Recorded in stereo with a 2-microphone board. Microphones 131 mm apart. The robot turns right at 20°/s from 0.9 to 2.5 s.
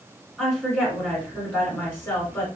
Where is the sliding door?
I don't hear a sliding door.